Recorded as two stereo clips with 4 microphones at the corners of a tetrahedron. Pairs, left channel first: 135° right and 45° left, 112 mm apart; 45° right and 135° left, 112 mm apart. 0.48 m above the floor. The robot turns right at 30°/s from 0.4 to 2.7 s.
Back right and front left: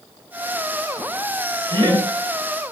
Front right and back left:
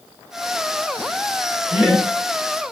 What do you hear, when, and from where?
1.7 s laughter: 45° left, 1.1 m; by 2.1 s 55° left, 1.1 m